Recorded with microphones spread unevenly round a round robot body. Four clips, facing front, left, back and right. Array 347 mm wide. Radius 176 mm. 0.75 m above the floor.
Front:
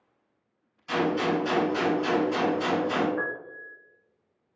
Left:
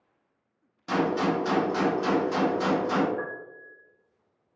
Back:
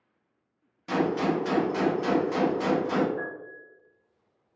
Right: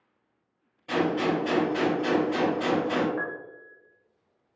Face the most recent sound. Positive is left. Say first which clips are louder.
# right 1 dB, front 3 dB
turn(degrees=-70)